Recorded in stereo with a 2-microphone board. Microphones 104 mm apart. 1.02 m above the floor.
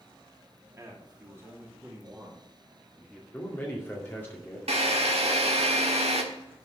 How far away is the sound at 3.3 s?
About 2 m.